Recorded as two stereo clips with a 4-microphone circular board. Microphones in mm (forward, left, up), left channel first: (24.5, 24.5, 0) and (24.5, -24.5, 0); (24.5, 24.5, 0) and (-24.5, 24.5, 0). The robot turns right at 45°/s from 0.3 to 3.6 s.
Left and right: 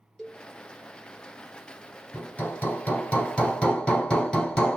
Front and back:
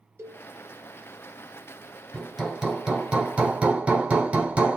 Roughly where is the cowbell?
Behind.